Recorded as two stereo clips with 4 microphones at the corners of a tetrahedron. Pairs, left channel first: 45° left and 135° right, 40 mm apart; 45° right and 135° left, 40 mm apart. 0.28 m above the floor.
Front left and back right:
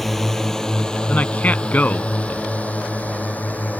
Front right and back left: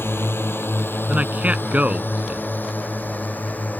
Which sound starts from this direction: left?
A man speaking, at 1.1 s.